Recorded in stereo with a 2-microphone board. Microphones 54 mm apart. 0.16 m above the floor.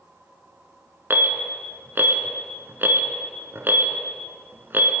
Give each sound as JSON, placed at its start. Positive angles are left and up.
{"t": 1.1, "sound": "an alarm", "side_deg": -45, "distance_m": 1.3}